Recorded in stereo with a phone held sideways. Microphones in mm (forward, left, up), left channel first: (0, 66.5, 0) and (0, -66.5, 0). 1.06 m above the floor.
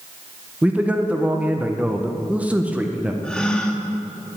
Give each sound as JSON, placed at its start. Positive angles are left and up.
{"t": 0.6, "sound": "a man speaking", "side_deg": -10, "distance_m": 0.5}
{"t": 3.2, "sound": "a gasp", "side_deg": 5, "distance_m": 0.6}